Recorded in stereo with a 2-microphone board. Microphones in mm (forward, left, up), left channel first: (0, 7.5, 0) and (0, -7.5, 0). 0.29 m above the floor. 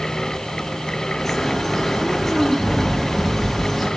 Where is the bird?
20° left (ahead or behind), 4 m.